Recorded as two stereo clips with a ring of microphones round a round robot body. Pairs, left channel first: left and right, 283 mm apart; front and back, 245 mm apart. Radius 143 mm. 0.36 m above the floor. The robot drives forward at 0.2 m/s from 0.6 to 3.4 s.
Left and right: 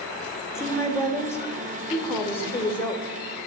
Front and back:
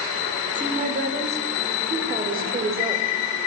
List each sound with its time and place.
0.6 s a woman speaking: 155° left, 0.9 m; by 3.2 s 170° left, 1.2 m